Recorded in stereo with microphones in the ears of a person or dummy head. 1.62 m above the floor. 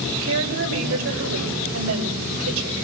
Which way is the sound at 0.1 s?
80° right.